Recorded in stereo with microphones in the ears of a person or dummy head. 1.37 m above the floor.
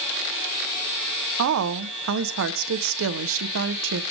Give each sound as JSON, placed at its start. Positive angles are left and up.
{"t": 1.4, "sound": "a woman speaking", "side_deg": -70, "distance_m": 0.7}